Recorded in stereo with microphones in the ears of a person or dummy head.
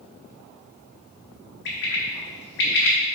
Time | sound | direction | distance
1.6 | a bird | 65° left (ahead or behind) | 1.4 m